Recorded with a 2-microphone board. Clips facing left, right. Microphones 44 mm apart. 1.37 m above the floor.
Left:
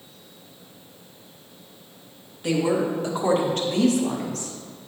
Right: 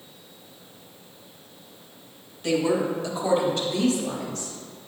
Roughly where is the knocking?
No knocking in this recording.